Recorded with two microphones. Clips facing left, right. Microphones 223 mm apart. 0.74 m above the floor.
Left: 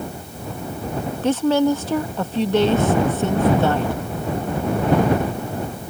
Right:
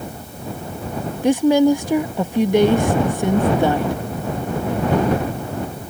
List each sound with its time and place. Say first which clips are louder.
1.2 s a woman speaking: right 4 dB; 15° right (ahead or behind)